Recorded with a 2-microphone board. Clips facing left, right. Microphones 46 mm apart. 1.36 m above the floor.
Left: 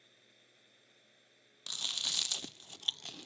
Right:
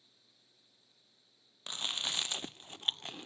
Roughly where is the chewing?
Right.